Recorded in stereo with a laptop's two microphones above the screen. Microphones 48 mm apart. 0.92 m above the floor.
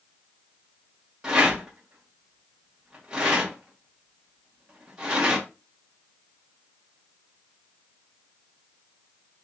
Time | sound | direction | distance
1.2 | a rattle | 15° right (ahead or behind) | 1.1 m